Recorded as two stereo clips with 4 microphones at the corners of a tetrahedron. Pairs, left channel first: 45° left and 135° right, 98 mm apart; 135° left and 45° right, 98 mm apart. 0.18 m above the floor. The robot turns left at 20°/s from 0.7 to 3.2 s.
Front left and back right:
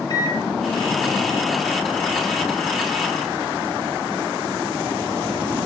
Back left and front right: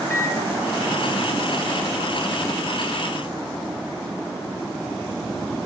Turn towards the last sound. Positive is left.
turn(degrees=20)